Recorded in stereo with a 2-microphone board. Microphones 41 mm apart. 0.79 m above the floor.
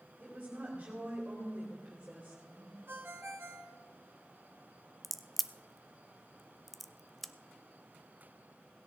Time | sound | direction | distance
0.2 | a woman speaking | 35° right (ahead or behind) | 4 m
2.9 | a ringtone | 70° right (ahead or behind) | 1.3 m
5.0 | a crack | centre (ahead or behind) | 0.6 m